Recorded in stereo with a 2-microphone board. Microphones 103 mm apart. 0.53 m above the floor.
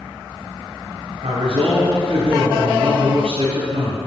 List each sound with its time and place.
1.2 s a man speaking: 75° right (ahead or behind), 3 m